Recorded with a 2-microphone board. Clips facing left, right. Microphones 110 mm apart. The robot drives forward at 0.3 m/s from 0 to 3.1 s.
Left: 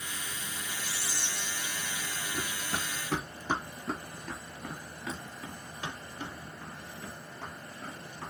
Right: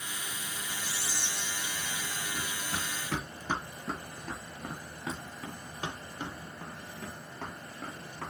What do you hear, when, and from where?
0.8 s whispering: 60° right (ahead or behind), 3 m
2.3 s running footsteps: 45° left (ahead or behind), 1.1 m; by 8.3 s 70° right (ahead or behind), 2.5 m